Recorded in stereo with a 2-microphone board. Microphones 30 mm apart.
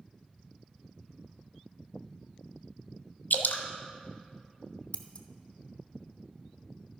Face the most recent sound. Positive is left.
turn(degrees=40)  # may be behind; listen again after turning